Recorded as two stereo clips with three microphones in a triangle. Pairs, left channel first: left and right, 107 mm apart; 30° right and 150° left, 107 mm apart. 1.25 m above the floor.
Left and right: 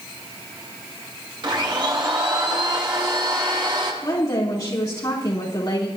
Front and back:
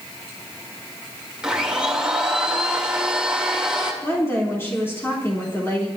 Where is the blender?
125° right, 2.5 m.